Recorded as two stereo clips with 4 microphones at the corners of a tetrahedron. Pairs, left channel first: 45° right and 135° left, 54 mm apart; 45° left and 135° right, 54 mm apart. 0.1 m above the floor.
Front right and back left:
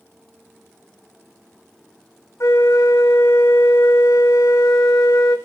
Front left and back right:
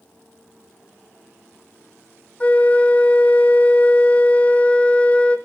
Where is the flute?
20° right, 1.4 m.